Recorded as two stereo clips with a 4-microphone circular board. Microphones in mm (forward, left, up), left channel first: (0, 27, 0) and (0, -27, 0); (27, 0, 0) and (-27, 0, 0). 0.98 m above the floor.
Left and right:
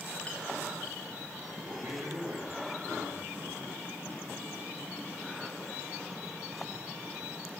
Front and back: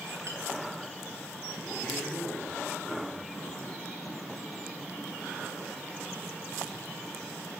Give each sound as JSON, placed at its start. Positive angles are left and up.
{"t": 0.3, "sound": "a clink", "azimuth_deg": 155, "distance_m": 2.5}
{"t": 1.6, "sound": "a man speaking", "azimuth_deg": -75, "distance_m": 7.0}